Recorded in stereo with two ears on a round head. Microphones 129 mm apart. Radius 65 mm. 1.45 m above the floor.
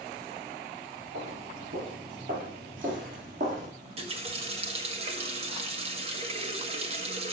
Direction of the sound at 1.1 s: 75° right (ahead or behind).